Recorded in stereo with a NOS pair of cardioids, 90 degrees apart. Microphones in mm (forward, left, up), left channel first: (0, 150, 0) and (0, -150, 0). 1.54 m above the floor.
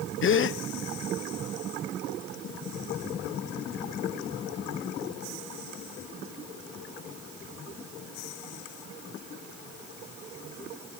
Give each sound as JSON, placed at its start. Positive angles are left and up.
{"t": 0.2, "sound": "a gasp", "azimuth_deg": 45, "distance_m": 1.0}